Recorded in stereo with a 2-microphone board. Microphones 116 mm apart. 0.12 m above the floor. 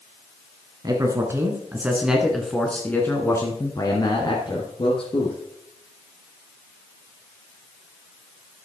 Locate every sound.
0.8 s a man speaking: 35° right (ahead or behind), 1.9 m; by 5.4 s 50° left (ahead or behind), 2.5 m